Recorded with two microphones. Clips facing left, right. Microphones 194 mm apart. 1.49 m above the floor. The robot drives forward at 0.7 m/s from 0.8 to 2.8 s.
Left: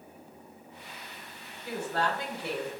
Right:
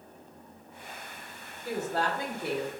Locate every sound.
1.6 s a woman speaking: 40° right (ahead or behind), 1.6 m; by 2.7 s 60° right (ahead or behind), 1.1 m